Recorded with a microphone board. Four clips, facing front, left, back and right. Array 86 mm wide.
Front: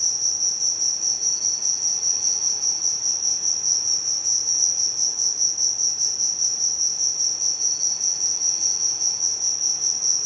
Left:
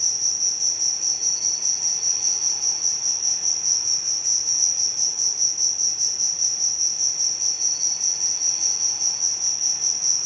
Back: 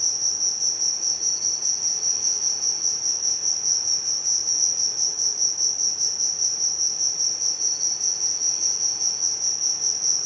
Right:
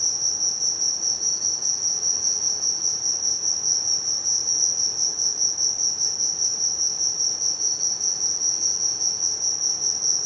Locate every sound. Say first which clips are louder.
0.0 s an insect: right 2 dB, back 1 dB; 90° left, 1.0 m